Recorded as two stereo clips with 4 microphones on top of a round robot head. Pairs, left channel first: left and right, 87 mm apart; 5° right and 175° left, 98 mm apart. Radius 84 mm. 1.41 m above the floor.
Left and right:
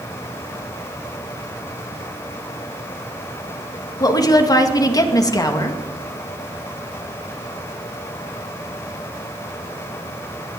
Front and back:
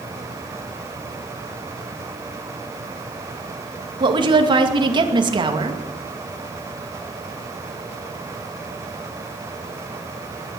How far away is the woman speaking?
About 2.5 m.